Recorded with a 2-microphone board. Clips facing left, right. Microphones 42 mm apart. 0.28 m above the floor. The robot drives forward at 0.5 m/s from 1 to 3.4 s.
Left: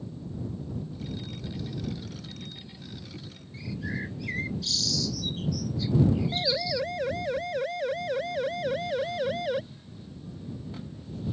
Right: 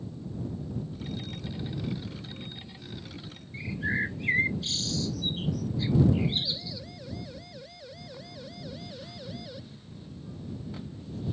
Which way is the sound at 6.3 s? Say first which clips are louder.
Left 6 dB; 60° left (ahead or behind).